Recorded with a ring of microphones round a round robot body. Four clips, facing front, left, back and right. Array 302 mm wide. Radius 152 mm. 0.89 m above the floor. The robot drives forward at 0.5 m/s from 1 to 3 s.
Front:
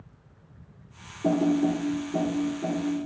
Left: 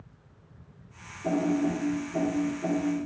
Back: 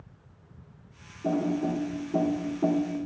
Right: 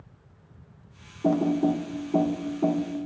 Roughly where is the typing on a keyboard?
Ahead right.